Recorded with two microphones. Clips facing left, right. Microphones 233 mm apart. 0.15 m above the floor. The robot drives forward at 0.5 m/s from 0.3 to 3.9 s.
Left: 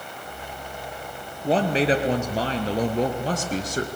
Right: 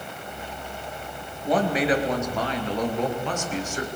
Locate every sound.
1.4 s a man speaking: 30° left (ahead or behind), 3 m; by 3.9 s 40° left (ahead or behind), 2.5 m